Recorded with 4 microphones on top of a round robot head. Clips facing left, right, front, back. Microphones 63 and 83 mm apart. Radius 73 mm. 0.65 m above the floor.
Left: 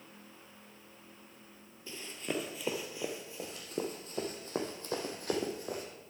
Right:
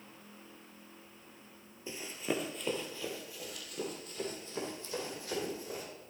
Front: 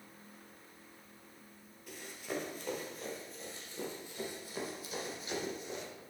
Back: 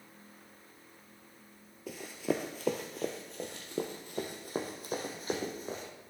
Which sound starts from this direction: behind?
Running footsteps, at 1.9 s.